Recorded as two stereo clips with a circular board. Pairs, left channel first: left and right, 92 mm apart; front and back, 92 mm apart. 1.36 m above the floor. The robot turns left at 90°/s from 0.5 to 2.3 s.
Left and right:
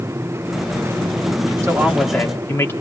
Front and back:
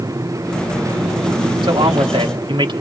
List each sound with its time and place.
1.6 s a man speaking: 150° right, 3.5 m; by 2.7 s 150° left, 3.5 m